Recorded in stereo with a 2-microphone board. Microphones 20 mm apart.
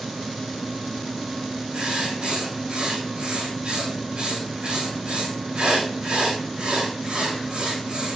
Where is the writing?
55° right (ahead or behind), 5 m.